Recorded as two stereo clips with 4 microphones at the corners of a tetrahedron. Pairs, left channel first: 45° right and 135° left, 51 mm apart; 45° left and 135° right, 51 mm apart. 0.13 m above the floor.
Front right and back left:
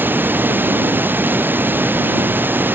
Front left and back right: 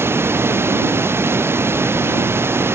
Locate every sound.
0.0 s running water: 175° right